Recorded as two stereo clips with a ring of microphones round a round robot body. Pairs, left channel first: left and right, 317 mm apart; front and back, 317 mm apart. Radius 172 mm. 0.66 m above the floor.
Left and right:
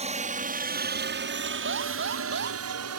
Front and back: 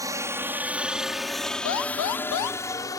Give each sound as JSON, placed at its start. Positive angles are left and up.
{"t": 0.0, "sound": "a helicopter", "azimuth_deg": -115}
{"t": 1.6, "sound": "an alarm", "azimuth_deg": -30}